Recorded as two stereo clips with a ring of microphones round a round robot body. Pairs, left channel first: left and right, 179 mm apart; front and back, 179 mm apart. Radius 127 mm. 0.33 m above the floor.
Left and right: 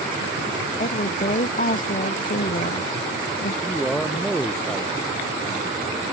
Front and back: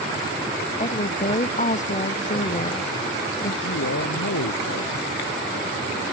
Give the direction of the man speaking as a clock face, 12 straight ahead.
12 o'clock.